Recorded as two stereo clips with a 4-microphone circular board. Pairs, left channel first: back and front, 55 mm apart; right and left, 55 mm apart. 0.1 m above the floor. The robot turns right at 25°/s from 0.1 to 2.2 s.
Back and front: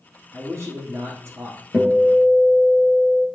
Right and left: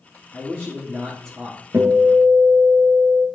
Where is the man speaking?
15° right, 2 m; by 1.6 s 15° left, 2 m.